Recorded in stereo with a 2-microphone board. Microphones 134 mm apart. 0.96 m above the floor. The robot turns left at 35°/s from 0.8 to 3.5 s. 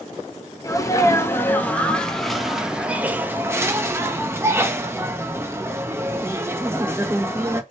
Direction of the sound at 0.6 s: 25° left (ahead or behind).